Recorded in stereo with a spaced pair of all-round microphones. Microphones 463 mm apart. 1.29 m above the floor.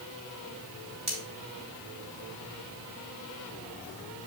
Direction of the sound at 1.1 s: 35° right (ahead or behind).